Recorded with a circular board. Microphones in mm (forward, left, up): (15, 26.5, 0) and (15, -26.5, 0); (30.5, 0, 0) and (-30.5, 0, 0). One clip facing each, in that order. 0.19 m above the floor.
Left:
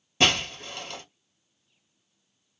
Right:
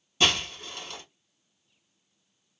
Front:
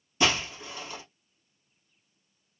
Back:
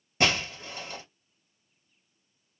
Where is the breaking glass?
140° left, 2 m.